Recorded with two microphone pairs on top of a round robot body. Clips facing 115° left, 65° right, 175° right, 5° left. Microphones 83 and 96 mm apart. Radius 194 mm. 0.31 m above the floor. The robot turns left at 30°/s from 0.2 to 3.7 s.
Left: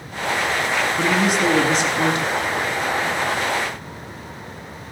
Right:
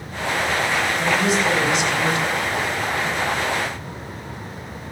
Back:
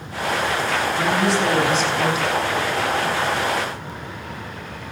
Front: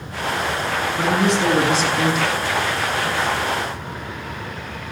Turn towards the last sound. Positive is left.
turn(degrees=5)